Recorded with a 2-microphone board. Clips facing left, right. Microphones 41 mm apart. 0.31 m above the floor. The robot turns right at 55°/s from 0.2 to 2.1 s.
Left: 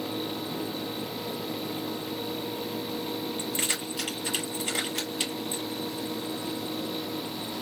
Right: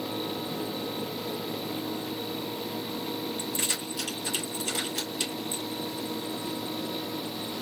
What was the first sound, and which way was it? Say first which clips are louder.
Keys jangling: left 1 dB; 40° left (ahead or behind).